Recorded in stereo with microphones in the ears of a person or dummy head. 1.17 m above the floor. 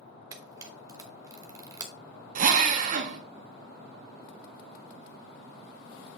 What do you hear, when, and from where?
0.3 s a camera shutter: 20° right (ahead or behind), 0.8 m
2.4 s a drill: 40° right (ahead or behind), 0.8 m